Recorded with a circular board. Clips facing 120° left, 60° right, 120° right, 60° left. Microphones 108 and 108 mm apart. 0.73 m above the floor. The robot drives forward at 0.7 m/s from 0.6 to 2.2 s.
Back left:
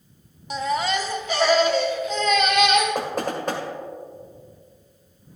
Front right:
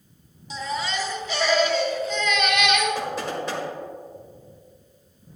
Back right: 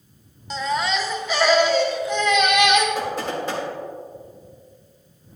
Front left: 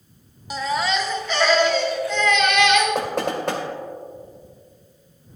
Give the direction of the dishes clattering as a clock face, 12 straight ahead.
I don't hear dishes clattering.